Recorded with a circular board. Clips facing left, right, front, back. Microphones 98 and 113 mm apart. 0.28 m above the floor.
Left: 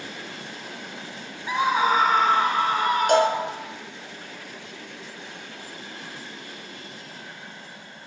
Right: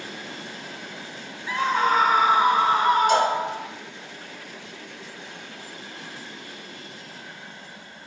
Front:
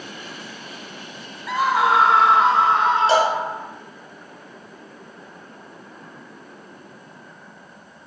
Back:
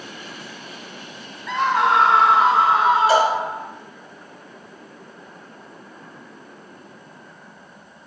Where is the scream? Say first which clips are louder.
Left 1 dB, even; 70° left, 0.9 m; by 3.7 s 100° right, 1.2 m.